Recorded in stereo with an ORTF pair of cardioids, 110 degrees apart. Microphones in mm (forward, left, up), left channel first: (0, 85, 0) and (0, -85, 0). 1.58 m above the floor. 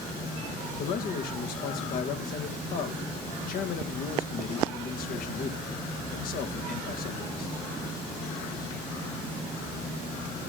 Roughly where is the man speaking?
Ahead left.